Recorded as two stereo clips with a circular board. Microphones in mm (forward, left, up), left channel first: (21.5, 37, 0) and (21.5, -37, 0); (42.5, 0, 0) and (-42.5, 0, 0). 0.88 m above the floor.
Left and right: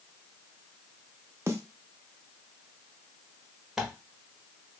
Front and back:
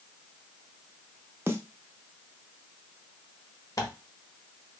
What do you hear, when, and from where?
1.5 s a snare drum: 125° right, 0.6 m
3.8 s tearing paper: 10° right, 1.1 m